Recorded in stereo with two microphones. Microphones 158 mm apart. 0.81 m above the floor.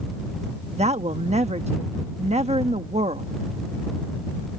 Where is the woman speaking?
45° right (ahead or behind).